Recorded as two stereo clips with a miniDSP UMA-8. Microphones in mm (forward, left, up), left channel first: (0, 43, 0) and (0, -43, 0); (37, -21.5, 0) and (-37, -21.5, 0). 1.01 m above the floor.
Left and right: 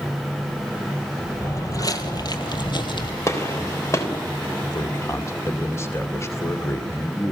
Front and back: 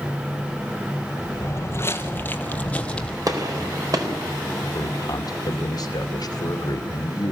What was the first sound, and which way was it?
Footsteps, 40° left.